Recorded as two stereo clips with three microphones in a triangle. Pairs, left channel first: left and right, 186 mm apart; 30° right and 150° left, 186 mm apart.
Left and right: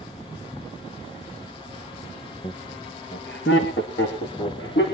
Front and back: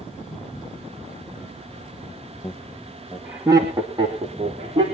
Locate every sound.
2.4 s laughter: 40° left, 1.5 m; by 4.8 s 95° left, 4 m